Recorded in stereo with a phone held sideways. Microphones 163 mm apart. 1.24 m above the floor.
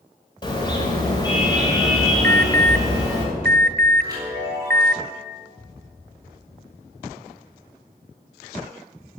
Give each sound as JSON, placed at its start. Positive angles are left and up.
{"t": 0.4, "sound": "a car horn", "side_deg": 25, "distance_m": 3.5}
{"t": 2.2, "sound": "an alarm", "side_deg": -70, "distance_m": 0.7}
{"t": 4.0, "sound": "a chime", "side_deg": -25, "distance_m": 7.0}